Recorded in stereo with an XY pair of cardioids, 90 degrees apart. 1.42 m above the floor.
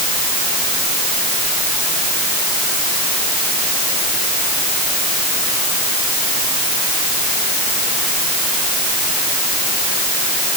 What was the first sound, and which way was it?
Only background noise.